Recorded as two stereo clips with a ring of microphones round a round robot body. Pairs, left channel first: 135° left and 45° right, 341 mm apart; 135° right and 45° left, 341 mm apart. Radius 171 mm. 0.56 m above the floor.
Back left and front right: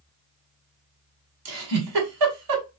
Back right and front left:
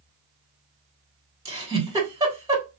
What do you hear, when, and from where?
1.4 s a giggle: 35° right, 2.5 m